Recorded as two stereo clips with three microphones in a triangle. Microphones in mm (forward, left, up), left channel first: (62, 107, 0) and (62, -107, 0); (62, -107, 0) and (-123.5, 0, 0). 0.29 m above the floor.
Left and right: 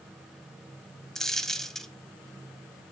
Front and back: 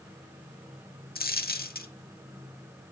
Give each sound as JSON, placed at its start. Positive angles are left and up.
{"t": 1.1, "sound": "a dropped coin", "azimuth_deg": 0, "distance_m": 0.7}